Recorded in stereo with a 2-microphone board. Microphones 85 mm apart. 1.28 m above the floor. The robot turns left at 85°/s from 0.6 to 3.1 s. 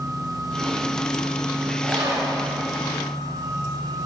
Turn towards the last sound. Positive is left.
turn(degrees=165)